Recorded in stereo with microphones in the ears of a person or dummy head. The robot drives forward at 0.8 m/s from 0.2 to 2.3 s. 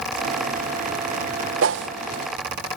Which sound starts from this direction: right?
A whoosh, at 1.6 s.